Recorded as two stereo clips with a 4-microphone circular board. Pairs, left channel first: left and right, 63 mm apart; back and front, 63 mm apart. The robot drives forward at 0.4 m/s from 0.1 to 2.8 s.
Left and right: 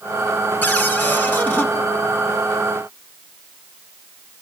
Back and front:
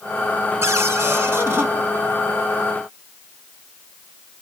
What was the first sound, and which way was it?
A cupboard door, 40° left.